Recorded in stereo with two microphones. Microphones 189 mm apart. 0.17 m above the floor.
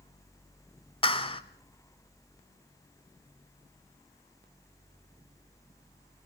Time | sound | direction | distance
1.0 | a clap | 30° left (ahead or behind) | 0.9 m